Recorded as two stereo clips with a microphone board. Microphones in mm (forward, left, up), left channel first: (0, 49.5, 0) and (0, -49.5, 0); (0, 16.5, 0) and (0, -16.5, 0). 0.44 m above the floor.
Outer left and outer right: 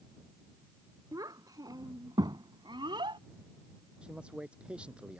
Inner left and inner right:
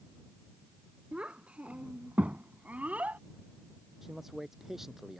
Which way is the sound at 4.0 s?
10° right (ahead or behind).